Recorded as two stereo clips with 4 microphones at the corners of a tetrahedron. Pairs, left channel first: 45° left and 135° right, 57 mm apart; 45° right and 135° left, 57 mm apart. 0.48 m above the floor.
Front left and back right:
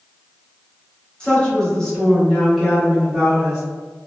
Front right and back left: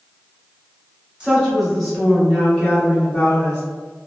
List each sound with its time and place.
1.2 s a woman speaking: 90° left, 1.2 m; by 3.6 s 65° right, 1.4 m